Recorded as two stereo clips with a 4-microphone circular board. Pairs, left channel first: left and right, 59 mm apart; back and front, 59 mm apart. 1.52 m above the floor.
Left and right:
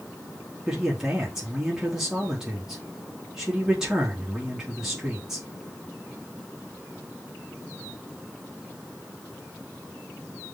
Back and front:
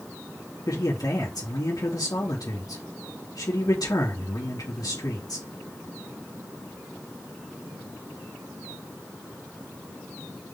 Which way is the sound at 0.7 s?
170° right.